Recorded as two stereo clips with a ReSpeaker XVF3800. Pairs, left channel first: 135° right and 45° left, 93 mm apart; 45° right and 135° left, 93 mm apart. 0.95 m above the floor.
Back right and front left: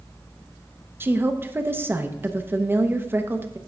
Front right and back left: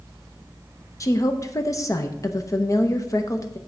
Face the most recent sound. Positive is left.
turn(degrees=-10)